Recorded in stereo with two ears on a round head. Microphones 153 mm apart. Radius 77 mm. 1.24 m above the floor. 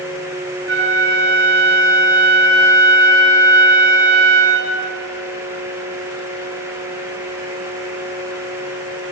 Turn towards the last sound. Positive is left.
turn(degrees=-75)  # may be behind; listen again after turning